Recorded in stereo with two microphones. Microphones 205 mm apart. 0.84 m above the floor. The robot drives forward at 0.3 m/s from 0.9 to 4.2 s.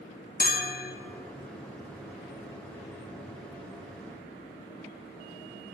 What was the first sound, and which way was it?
A bell, 45° left (ahead or behind).